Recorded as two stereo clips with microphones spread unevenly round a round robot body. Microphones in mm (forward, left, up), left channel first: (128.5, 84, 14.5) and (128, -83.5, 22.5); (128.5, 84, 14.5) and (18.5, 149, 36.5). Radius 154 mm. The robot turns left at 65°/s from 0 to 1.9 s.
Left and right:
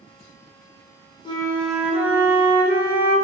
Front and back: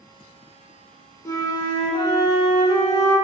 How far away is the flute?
About 1.2 m.